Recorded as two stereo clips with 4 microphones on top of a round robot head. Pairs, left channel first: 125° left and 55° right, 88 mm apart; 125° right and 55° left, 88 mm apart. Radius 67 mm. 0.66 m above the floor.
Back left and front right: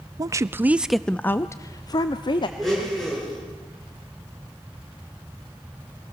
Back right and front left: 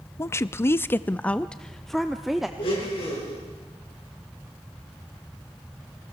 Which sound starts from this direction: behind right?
A blender, at 2.6 s.